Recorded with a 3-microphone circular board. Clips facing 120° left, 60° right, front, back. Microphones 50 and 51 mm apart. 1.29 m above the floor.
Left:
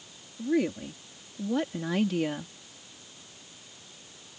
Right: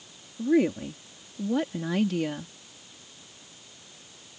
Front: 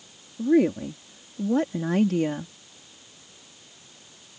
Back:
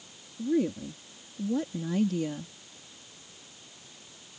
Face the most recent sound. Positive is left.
turn(degrees=40)